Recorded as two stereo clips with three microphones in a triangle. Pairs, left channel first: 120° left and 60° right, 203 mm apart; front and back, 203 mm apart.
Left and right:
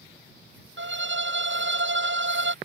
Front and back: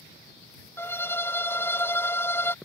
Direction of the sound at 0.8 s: 80° right.